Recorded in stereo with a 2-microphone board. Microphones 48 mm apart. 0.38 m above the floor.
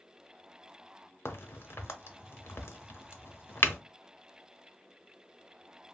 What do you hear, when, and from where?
1.2 s a crack: 60° left (ahead or behind), 0.6 m